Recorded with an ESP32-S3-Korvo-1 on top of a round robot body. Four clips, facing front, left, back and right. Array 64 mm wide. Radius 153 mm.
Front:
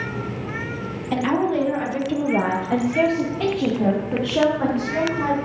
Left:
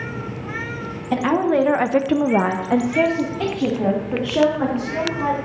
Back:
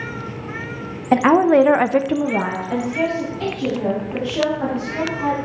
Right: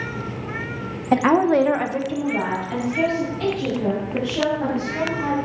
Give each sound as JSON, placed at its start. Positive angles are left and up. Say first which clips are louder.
{"t": 1.1, "sound": "a woman speaking", "louder": "right 2 dB, back 8 dB", "azimuth_deg": -155, "distance_m": 1.1}